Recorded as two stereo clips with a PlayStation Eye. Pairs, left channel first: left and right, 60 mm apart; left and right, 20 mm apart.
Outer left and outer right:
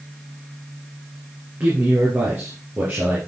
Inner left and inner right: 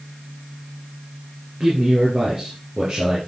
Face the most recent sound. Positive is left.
turn(degrees=-35)  # may be behind; listen again after turning